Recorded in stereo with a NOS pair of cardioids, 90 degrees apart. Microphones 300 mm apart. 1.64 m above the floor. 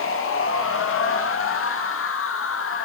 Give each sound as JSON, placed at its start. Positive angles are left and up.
{"t": 0.0, "sound": "a machine running", "azimuth_deg": 45, "distance_m": 2.5}